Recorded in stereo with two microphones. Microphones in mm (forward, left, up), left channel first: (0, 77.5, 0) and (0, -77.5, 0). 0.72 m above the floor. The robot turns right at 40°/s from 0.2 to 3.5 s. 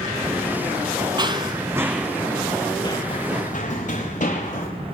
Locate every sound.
1.2 s running footsteps: 30° right (ahead or behind), 0.8 m; by 4.7 s 55° left (ahead or behind), 6 m